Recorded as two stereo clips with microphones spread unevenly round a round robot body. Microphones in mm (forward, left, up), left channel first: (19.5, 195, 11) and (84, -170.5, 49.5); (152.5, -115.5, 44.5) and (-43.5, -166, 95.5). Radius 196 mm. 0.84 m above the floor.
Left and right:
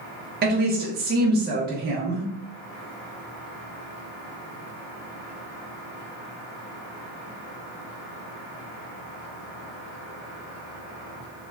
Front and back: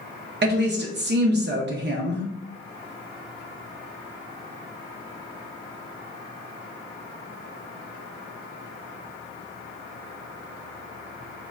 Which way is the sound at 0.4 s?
140° right.